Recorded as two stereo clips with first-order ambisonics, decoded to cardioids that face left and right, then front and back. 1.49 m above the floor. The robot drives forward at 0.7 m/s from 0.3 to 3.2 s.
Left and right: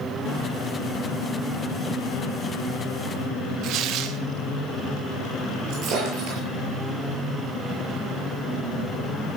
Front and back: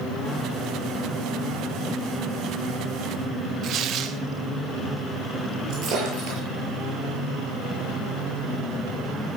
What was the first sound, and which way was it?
Tearing paper, 130° right.